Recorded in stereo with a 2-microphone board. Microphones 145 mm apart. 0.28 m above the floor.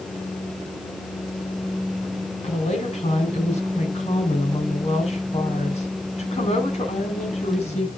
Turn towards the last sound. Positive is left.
turn(degrees=50)  # may be behind; listen again after turning